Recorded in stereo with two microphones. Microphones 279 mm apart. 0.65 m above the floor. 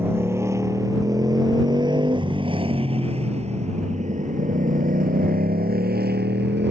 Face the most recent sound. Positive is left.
turn(degrees=-40)  # may be behind; listen again after turning